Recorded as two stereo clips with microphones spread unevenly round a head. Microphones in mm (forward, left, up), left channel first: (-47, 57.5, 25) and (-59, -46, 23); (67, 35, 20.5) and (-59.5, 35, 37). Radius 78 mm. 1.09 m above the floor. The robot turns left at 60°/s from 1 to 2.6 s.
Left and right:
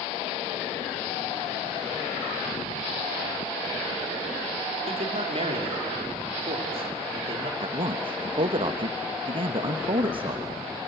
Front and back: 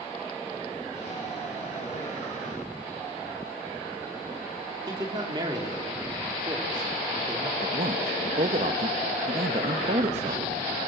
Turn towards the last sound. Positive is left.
turn(degrees=-130)